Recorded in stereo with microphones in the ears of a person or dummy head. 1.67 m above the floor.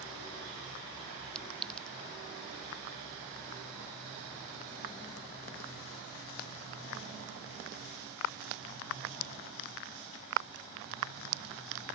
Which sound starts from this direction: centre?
A clink, at 1.4 s.